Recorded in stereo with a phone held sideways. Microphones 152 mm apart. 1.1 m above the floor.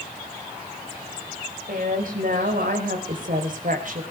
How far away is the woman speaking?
About 5 m.